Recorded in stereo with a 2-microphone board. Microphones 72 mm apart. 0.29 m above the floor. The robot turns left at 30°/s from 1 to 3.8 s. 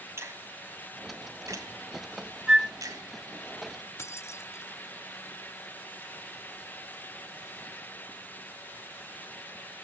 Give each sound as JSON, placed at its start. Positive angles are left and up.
{"t": 0.2, "sound": "a finger snap", "side_deg": -35, "distance_m": 2.0}
{"t": 2.5, "sound": "a flute", "side_deg": -10, "distance_m": 1.0}
{"t": 4.0, "sound": "keys jangling", "side_deg": 40, "distance_m": 0.9}